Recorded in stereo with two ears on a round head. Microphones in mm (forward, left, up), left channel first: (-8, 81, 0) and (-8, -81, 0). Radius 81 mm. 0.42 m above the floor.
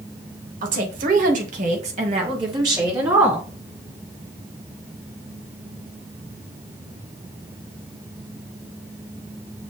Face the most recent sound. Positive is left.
turn(degrees=-10)  # may be behind; listen again after turning